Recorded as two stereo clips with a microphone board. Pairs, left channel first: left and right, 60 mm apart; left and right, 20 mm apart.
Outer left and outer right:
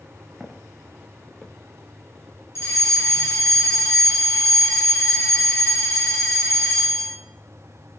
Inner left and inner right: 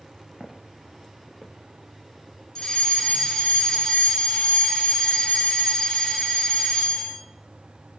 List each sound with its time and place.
0.4 s footsteps: 10° right (ahead or behind), 2.5 m; by 1.6 s 5° left (ahead or behind), 2 m
2.5 s a fire alarm: 45° left (ahead or behind), 3.5 m